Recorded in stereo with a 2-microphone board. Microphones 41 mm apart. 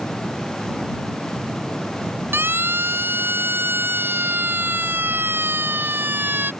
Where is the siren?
75° right (ahead or behind); by 6.5 s 60° right (ahead or behind).